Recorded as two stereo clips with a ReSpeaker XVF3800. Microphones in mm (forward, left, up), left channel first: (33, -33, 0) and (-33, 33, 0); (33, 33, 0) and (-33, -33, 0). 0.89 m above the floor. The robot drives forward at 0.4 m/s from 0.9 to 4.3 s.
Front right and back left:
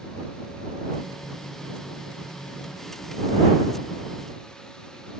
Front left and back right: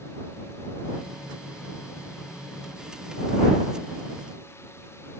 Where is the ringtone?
No ringtone in this recording.